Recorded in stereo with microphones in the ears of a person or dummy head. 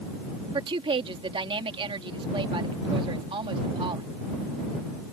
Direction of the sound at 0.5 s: 30° right (ahead or behind).